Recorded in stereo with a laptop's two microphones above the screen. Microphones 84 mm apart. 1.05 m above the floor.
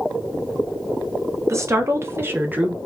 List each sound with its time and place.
1.5 s a woman speaking: 35° right (ahead or behind), 1.0 m; by 2.8 s 15° right (ahead or behind), 0.7 m